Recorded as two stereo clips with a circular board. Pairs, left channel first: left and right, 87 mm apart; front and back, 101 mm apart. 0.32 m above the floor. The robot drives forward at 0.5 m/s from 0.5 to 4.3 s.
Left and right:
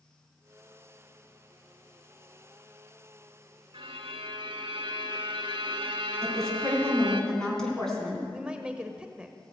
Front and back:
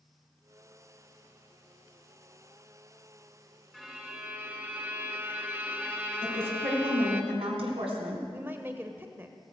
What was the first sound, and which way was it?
A violin, 90° right.